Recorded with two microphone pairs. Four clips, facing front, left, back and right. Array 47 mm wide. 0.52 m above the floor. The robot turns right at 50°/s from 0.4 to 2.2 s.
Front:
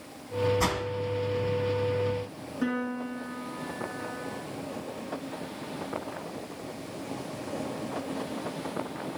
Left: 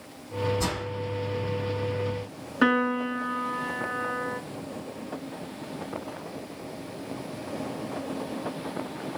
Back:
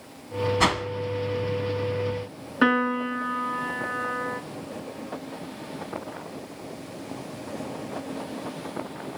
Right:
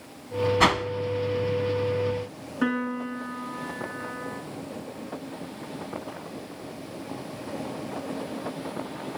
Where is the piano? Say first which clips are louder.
Left 4 dB, back 9 dB; 150° left, 1.1 m.